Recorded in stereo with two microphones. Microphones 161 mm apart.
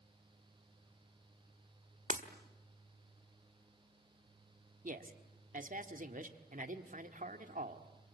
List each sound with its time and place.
2.1 s breaking glass: 50° right (ahead or behind), 1.7 m
4.8 s a man speaking: 55° right (ahead or behind), 1.7 m